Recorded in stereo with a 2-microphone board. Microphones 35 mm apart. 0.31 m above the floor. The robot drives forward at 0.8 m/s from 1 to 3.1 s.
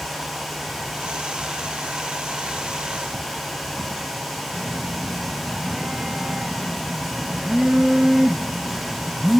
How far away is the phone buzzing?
About 1.5 m.